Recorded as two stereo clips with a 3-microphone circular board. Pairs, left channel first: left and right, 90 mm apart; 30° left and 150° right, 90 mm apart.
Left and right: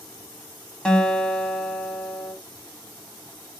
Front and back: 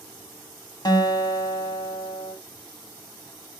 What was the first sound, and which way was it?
A guitar, 10° left.